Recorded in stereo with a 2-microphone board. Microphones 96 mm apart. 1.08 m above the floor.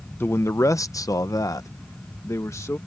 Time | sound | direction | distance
0.2 | a man speaking | 25° left (ahead or behind) | ?